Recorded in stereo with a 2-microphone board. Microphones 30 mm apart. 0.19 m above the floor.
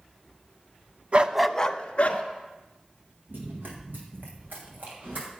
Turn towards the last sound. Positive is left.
turn(degrees=-75)  # may be behind; listen again after turning